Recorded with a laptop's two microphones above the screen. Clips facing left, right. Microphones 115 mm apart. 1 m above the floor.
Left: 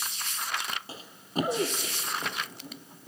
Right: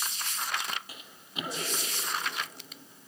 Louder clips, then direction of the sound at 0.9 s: Left 10 dB; 30° left (ahead or behind).